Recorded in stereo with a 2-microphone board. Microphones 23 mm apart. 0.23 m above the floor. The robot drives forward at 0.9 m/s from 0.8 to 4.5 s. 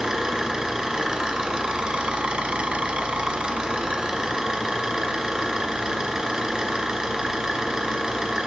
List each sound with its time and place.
0.0 s an engine running: 30° right (ahead or behind), 2 m